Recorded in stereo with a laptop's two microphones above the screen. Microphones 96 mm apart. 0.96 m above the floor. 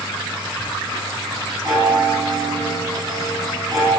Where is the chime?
35° right (ahead or behind), 7.5 m.